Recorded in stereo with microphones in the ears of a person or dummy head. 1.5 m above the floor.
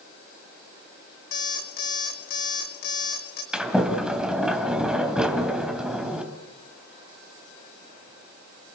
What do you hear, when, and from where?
1.3 s an alarm clock: 55° left (ahead or behind), 2.5 m
3.5 s a sliding door: 5° right (ahead or behind), 3 m